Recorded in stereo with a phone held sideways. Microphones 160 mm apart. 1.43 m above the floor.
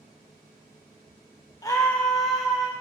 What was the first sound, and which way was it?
A scream, 25° left (ahead or behind).